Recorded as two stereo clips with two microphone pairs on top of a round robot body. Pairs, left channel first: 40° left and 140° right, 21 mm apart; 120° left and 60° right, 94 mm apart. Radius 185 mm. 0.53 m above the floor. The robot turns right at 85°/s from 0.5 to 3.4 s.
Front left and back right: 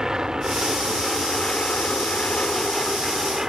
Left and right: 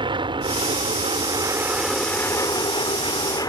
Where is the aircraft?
90° right; by 3.5 s 155° left.